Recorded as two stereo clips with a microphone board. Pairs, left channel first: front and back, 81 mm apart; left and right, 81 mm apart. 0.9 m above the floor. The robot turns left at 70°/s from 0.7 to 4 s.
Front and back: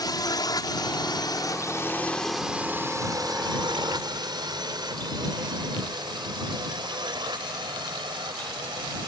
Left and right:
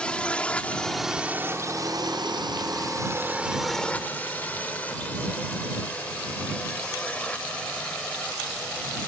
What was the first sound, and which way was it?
A drone, 15° left.